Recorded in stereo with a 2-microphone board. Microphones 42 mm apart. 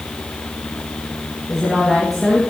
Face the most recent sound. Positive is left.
turn(degrees=-10)  # may be behind; listen again after turning